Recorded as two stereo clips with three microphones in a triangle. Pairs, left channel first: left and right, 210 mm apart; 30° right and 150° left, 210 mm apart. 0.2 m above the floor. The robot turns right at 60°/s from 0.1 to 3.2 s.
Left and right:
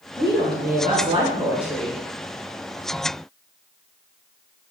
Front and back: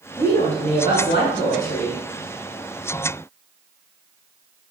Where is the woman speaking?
95° right, 2 m; by 2.0 s 15° left, 2 m.